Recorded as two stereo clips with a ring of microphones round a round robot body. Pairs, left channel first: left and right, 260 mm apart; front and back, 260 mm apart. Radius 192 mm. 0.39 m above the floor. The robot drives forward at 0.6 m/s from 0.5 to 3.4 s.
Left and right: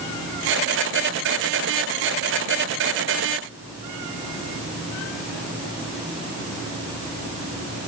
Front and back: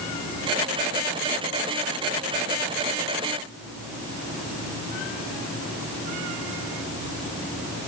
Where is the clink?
I don't hear a clink.